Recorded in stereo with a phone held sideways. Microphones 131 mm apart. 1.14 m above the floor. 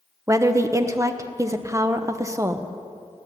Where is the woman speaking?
25° right (ahead or behind), 0.6 m.